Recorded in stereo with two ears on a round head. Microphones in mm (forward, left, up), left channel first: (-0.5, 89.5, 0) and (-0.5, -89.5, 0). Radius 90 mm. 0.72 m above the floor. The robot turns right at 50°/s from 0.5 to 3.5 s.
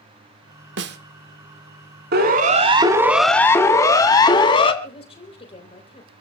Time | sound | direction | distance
0.8 | a snare drum | 60° right (ahead or behind) | 1.5 m
2.1 | a siren | 55° right (ahead or behind) | 2.5 m
4.8 | a woman speaking | 30° left (ahead or behind) | 3.5 m